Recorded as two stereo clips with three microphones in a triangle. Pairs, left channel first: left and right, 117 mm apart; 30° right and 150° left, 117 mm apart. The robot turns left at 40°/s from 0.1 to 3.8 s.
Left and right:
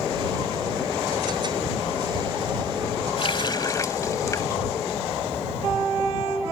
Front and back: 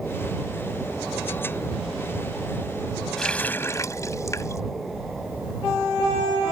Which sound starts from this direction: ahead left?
A running tap, at 3.2 s.